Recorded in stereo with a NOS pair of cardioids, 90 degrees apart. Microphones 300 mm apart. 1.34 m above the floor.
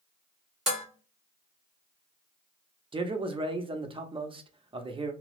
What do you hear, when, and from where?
0.7 s dishes clattering: straight ahead, 1.0 m
2.9 s a man speaking: 15° right, 0.7 m